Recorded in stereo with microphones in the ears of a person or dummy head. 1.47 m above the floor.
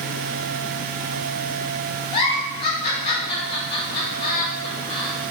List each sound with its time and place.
2.1 s a giggle: 30° left (ahead or behind), 0.8 m